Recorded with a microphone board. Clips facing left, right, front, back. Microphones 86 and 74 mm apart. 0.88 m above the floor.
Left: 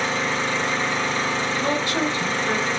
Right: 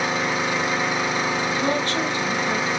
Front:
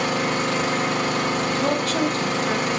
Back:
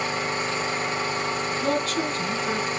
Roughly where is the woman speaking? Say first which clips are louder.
Even, front 1 dB; ahead.